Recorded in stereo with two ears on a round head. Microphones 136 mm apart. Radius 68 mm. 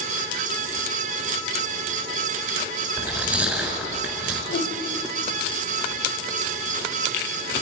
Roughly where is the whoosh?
Left.